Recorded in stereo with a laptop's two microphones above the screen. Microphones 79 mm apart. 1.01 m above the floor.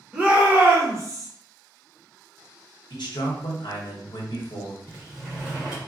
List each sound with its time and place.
0.1 s a shout: 15° right (ahead or behind), 1.0 m; by 1.3 s 45° right (ahead or behind), 1.0 m
2.9 s a man speaking: 70° left (ahead or behind), 1.0 m
4.9 s a sliding door: 10° right (ahead or behind), 1.8 m